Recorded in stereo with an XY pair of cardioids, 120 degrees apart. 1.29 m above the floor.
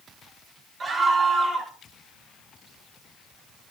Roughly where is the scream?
Ahead right.